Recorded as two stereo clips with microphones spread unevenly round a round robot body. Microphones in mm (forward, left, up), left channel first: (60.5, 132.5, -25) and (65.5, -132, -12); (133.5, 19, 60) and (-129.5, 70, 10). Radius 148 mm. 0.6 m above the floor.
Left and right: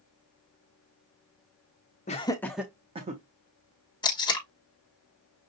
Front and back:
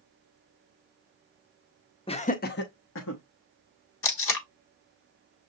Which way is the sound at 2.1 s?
60° left.